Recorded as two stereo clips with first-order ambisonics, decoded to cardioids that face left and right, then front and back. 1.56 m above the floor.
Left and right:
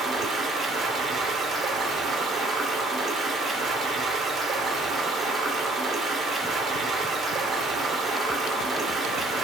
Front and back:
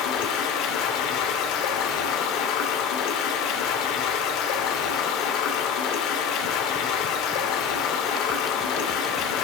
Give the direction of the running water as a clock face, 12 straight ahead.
1 o'clock.